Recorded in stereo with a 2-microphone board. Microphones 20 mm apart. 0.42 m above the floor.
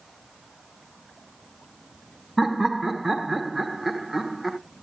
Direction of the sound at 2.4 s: 20° right (ahead or behind).